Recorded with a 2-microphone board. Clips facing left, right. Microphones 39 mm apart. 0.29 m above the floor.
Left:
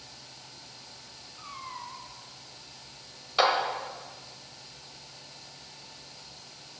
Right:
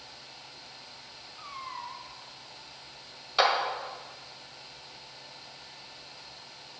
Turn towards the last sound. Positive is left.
turn(degrees=0)  # may be behind; listen again after turning